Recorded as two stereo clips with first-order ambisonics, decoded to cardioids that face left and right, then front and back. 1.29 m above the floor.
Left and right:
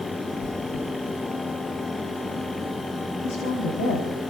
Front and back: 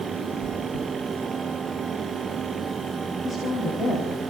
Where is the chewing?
55° left, 2.5 m.